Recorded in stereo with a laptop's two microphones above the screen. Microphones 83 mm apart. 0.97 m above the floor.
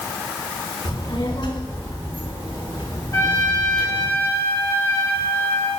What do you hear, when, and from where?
0.8 s a child speaking: 75° left (ahead or behind), 6 m; by 4.1 s 65° left (ahead or behind), 9 m
3.1 s a trumpet: 45° left (ahead or behind), 2 m